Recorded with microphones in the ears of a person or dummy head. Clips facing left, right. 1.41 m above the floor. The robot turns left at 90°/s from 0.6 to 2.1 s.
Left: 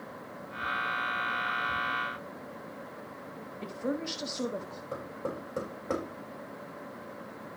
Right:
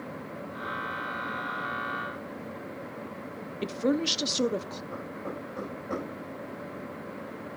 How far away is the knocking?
About 4.5 m.